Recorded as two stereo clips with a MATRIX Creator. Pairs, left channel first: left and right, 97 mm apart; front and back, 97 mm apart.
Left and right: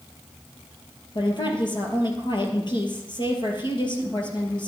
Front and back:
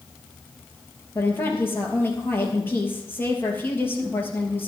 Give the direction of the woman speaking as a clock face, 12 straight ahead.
10 o'clock.